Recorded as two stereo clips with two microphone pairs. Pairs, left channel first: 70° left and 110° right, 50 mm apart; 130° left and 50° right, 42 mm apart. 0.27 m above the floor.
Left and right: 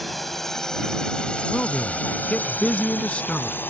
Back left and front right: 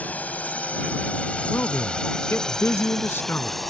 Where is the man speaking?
130° left.